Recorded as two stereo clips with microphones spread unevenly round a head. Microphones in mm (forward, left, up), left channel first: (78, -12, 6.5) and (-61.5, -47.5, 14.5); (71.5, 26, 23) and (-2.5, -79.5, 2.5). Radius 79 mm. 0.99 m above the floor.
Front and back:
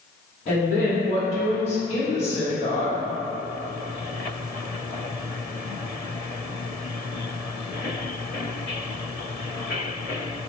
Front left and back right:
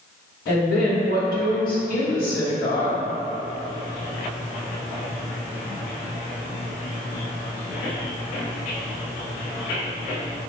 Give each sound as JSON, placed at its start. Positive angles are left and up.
{"t": 0.5, "sound": "a woman speaking", "azimuth_deg": 60, "distance_m": 1.2}